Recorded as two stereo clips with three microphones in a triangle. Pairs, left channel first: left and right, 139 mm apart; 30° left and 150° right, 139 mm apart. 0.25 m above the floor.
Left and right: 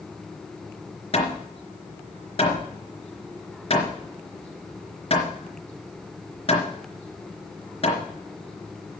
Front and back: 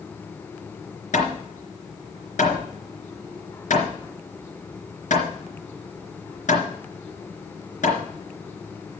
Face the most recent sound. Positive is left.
turn(degrees=45)